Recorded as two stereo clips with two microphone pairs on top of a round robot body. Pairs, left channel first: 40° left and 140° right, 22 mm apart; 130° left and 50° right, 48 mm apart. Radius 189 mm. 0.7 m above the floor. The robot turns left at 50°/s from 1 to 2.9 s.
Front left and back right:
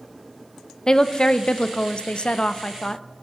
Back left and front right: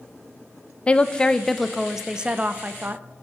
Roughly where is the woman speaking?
Left.